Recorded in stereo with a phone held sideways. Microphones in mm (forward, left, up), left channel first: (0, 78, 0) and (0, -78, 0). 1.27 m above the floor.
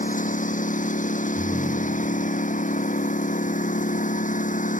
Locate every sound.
0.0 s a lawn mower: 55° left (ahead or behind)
1.4 s a ringtone: 5° right (ahead or behind)